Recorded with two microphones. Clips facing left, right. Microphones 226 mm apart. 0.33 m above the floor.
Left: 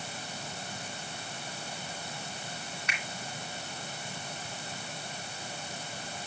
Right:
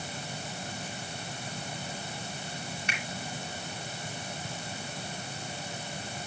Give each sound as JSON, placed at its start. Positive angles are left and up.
{"t": 2.9, "sound": "a finger snap", "side_deg": -30, "distance_m": 3.0}